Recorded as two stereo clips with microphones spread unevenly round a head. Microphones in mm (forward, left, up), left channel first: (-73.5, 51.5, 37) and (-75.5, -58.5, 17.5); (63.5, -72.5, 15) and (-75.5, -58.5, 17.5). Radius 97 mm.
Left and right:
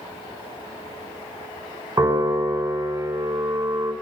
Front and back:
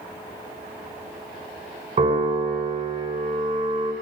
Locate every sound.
2.0 s a piano: 150° right, 6.5 m